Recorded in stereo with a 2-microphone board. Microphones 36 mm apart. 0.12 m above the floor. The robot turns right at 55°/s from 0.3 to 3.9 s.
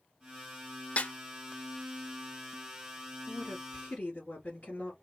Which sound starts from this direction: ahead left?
A woman speaking, at 3.3 s.